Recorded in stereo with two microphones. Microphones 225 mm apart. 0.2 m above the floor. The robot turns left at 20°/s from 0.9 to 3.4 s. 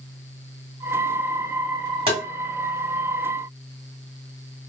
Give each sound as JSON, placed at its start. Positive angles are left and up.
{"t": 2.1, "sound": "tapping", "side_deg": -25, "distance_m": 1.5}